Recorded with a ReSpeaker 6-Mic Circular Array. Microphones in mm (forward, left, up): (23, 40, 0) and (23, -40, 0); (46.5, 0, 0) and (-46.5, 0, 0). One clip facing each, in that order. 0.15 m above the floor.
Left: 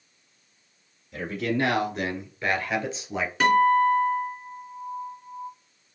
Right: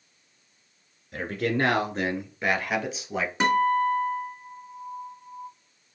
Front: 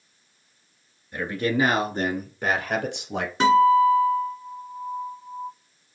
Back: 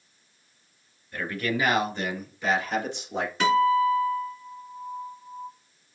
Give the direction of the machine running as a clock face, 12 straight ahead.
I don't hear a machine running.